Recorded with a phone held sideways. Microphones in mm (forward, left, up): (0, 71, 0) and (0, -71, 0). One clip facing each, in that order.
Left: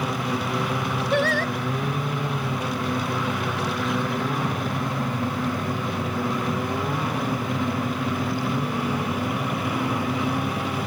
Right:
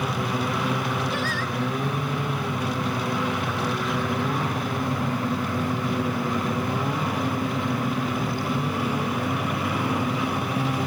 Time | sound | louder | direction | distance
1.1 | singing | left 6 dB | 65° left (ahead or behind) | ?